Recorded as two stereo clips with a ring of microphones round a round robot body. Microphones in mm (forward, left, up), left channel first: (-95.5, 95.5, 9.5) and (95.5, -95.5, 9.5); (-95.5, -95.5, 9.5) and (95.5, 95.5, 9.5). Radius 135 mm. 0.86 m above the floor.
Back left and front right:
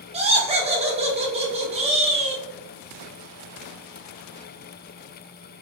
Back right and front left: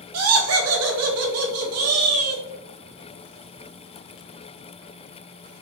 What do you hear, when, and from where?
0.1 s laughter: 20° left, 0.8 m